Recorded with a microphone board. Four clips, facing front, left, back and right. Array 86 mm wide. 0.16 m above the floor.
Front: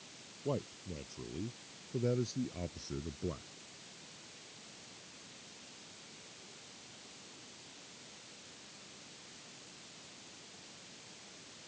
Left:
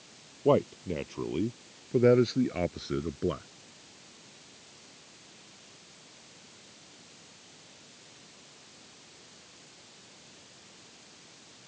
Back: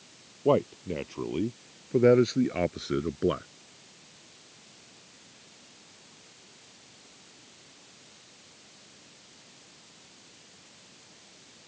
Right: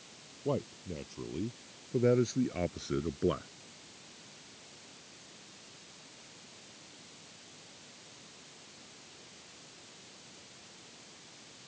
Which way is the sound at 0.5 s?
140° left.